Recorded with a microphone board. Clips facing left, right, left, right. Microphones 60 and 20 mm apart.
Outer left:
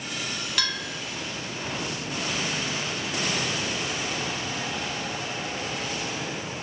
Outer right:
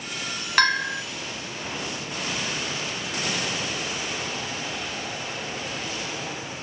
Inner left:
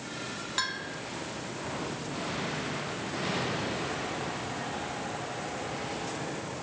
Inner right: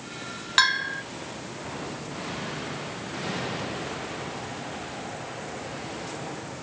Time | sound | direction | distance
0.6 | a bell | 50° right (ahead or behind) | 0.7 m